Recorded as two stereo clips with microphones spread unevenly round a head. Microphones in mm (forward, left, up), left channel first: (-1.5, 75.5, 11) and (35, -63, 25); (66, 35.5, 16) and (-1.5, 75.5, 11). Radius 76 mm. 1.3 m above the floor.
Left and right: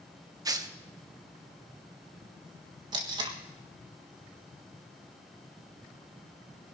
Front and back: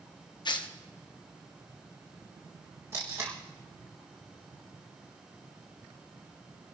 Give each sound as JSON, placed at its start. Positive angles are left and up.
{"t": 0.5, "sound": "tearing paper", "azimuth_deg": -10, "distance_m": 1.0}
{"t": 2.9, "sound": "tape being pulled", "azimuth_deg": -140, "distance_m": 1.6}